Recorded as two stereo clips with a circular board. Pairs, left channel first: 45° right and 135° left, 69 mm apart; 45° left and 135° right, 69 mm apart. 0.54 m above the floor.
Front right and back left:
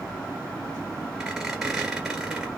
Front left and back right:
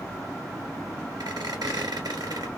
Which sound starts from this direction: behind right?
A squeak, at 1.2 s.